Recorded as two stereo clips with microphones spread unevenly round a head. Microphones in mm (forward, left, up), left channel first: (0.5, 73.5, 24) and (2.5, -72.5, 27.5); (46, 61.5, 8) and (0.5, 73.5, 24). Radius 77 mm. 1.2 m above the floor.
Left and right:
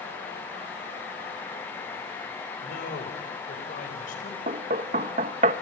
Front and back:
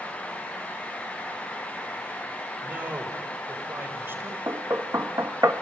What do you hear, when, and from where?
2.6 s a man speaking: 120° left, 3.5 m; by 4.4 s 130° left, 6 m
4.5 s knocking: 135° right, 1.0 m